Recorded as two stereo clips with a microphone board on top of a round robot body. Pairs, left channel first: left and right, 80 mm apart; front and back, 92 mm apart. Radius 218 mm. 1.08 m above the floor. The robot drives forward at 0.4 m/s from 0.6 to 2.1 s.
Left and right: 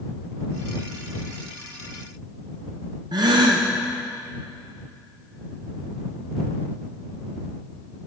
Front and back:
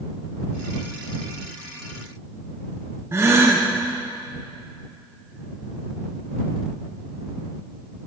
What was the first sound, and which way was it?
A gasp, 120° right.